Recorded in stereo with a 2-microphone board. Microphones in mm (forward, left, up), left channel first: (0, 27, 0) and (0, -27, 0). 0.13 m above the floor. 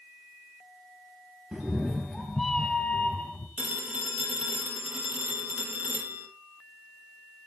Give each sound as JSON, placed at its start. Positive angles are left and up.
{"t": 1.5, "sound": "a cat meowing", "side_deg": -20, "distance_m": 1.2}
{"t": 3.6, "sound": "a phone ringing", "side_deg": -25, "distance_m": 3.5}